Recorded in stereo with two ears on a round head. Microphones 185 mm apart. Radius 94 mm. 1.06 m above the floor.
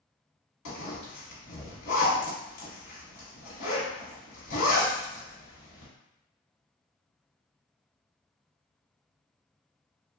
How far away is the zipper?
About 1.1 m.